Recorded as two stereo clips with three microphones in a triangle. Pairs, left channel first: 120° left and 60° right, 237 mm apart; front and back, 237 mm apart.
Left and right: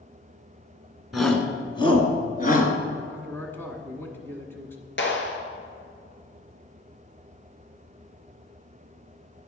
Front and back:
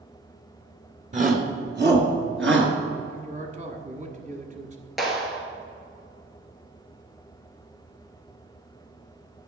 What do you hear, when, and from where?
1.1 s a shout: 145° right, 1.5 m; by 2.7 s 165° left, 2.5 m
3.1 s a man speaking: 165° right, 1.3 m
5.0 s a clap: 90° left, 1.9 m